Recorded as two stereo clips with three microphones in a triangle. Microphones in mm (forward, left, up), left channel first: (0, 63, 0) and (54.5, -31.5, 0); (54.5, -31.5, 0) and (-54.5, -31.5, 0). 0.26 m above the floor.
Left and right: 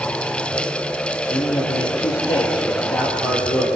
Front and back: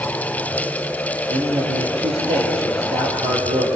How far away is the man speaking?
About 6.5 m.